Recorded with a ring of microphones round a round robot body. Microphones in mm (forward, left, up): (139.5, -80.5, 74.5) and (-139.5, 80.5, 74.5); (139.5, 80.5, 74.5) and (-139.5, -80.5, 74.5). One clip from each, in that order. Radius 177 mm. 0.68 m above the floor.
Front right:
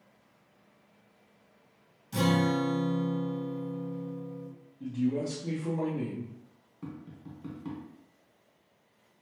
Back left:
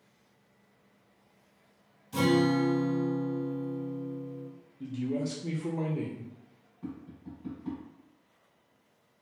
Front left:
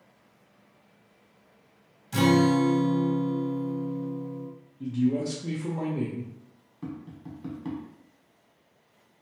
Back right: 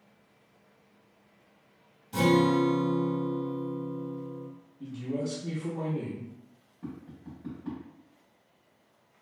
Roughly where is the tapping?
Ahead.